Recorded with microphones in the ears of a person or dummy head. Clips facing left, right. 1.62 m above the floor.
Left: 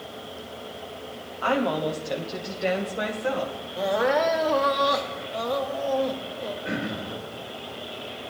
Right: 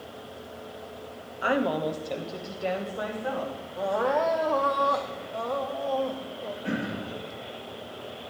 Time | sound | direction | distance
1.4 | a woman speaking | 20° right (ahead or behind) | 0.8 m
3.8 | crying | 25° left (ahead or behind) | 0.8 m
6.6 | throat clearing | 55° right (ahead or behind) | 3 m